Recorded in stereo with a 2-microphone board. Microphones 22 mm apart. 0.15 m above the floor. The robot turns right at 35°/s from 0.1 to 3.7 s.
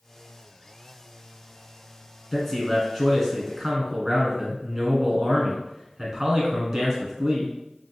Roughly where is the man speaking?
Behind.